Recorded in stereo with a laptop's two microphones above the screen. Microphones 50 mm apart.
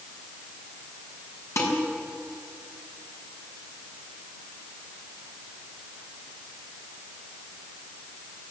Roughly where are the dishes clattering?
Left.